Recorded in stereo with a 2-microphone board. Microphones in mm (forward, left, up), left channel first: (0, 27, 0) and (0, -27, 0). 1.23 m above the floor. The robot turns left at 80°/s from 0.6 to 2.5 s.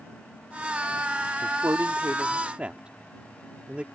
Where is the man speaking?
65° right (ahead or behind); by 3.9 s 25° right (ahead or behind).